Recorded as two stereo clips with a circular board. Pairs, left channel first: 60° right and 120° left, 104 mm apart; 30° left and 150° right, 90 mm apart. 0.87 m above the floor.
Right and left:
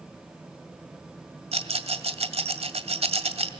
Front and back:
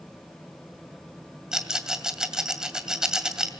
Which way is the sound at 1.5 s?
125° left.